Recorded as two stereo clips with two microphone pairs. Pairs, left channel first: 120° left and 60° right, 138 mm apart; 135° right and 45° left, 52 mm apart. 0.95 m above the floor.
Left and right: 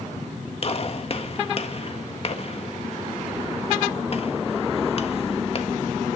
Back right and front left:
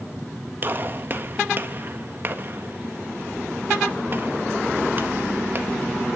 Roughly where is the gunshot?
Left.